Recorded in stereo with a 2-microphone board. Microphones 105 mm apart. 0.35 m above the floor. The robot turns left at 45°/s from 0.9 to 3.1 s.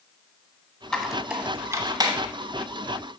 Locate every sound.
0.9 s a squeak: 5° left (ahead or behind), 1.1 m; by 2.2 s 45° right (ahead or behind), 1.1 m